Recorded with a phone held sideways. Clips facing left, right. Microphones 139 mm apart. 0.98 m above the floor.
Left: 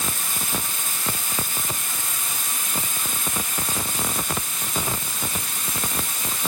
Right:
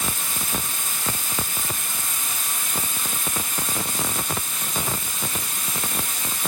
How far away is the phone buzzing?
I don't hear a phone buzzing.